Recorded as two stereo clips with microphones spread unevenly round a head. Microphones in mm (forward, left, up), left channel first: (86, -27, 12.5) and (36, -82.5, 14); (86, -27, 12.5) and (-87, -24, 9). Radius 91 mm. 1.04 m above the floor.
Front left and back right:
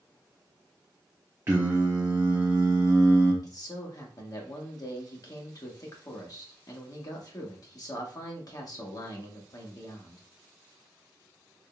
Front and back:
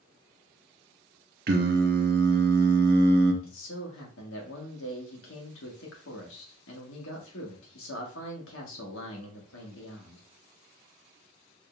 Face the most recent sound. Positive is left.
turn(degrees=15)